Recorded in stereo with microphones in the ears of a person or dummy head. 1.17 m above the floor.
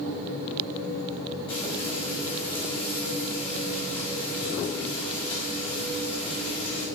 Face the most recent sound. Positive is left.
turn(degrees=30)  # may be behind; listen again after turning